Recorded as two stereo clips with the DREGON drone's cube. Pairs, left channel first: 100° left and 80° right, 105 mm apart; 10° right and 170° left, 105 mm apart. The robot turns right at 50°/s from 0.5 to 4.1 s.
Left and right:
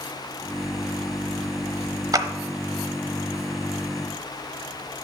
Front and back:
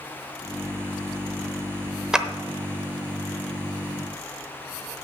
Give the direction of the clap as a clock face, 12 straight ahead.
4 o'clock.